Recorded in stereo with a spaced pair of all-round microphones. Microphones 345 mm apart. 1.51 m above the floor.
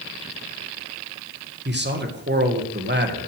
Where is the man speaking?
30° right (ahead or behind), 1.7 m.